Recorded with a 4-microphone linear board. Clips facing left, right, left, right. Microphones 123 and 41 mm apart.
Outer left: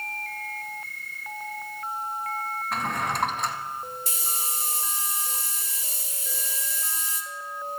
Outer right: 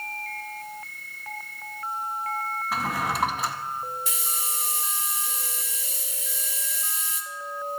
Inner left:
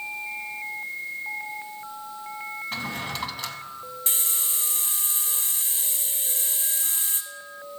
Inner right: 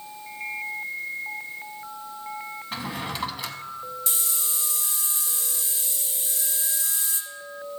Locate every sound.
2.7 s a drawer: 5° right (ahead or behind), 0.8 m
4.1 s a hiss: 40° left (ahead or behind), 1.0 m